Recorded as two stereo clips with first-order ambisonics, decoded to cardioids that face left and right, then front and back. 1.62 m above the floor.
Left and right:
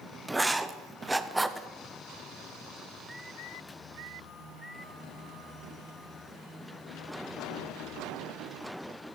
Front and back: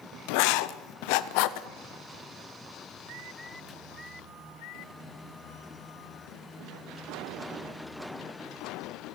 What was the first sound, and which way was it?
Writing, 5° right.